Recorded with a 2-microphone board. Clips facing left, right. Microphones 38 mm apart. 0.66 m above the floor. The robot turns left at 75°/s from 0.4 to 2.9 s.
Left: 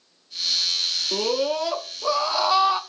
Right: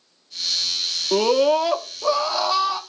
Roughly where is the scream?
Right.